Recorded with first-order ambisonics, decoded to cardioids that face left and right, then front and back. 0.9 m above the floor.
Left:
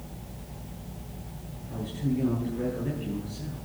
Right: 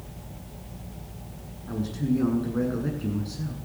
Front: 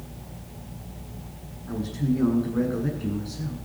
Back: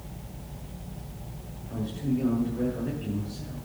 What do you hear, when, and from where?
1.7 s a man speaking: 50° right, 8 m